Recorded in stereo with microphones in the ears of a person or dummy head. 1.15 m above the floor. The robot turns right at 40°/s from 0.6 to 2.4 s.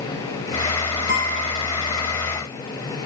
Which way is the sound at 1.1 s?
55° left (ahead or behind).